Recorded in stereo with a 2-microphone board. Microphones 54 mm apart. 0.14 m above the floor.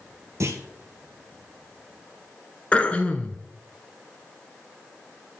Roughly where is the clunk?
Right.